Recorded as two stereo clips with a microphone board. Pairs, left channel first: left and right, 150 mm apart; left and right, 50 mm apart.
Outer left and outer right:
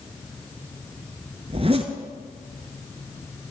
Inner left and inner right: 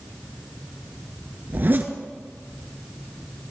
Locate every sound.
1.5 s a zipper: 40° right (ahead or behind), 0.9 m